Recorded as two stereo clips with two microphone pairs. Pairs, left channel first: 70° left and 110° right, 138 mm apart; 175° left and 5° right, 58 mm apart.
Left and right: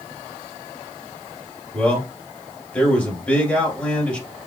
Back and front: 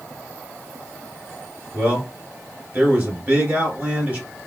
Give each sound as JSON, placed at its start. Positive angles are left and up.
{"t": 1.7, "sound": "a man speaking", "azimuth_deg": 0, "distance_m": 1.9}